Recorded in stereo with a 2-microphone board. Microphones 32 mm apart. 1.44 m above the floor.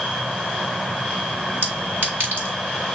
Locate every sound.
1.6 s a clink: 75° right (ahead or behind), 4 m